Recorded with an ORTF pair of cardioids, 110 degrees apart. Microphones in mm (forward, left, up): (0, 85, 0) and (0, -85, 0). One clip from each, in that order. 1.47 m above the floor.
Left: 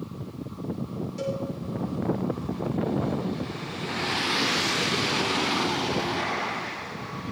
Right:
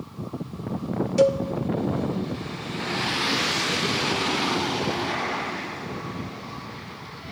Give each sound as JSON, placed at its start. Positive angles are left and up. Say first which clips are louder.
{"t": 1.2, "sound": "a cowbell", "louder": "right 12 dB", "azimuth_deg": -65, "distance_m": 1.1}